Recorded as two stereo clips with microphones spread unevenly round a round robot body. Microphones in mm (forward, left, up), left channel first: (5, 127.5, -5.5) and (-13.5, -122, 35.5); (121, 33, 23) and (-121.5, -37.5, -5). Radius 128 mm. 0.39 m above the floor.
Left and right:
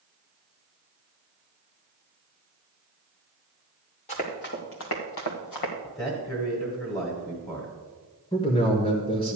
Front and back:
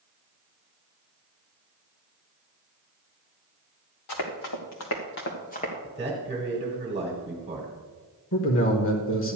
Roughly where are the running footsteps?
Ahead.